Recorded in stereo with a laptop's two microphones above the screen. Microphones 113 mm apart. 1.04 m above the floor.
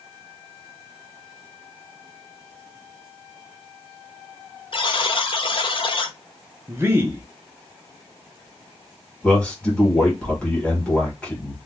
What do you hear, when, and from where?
4.7 s a buzzer: 50° left (ahead or behind), 0.5 m
6.7 s a man speaking: 20° right (ahead or behind), 0.7 m
9.2 s a man speaking: 10° left (ahead or behind), 1.3 m